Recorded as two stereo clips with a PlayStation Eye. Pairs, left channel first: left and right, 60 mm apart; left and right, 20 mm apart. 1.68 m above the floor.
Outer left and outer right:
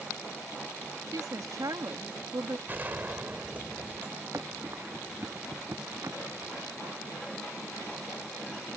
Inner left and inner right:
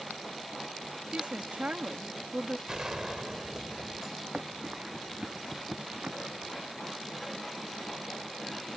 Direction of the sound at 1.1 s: 90° right.